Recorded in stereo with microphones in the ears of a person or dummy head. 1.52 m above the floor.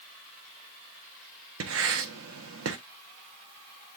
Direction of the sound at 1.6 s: 80° right.